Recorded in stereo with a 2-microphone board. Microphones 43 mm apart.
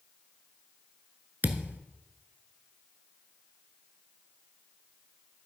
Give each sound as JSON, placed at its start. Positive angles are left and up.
{"t": 1.4, "sound": "a thud", "side_deg": -50, "distance_m": 0.8}